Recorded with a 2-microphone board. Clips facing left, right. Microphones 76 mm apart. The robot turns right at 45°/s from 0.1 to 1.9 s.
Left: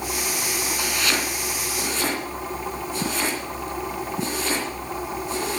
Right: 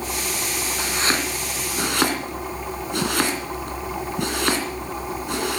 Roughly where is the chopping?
Right.